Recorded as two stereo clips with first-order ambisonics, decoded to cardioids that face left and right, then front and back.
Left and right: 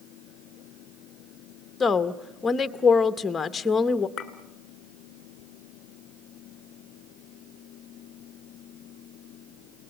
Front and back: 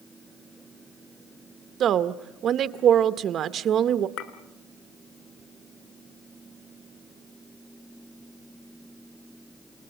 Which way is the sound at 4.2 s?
35° left.